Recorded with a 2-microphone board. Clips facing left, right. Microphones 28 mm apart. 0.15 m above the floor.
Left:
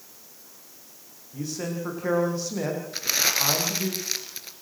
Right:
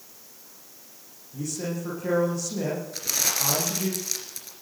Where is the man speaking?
30° left (ahead or behind), 9 m.